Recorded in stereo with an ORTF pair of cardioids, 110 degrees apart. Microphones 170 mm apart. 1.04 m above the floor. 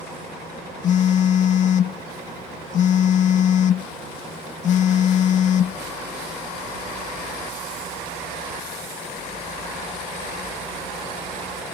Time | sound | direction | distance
0.8 | a phone buzzing | 45° left | ?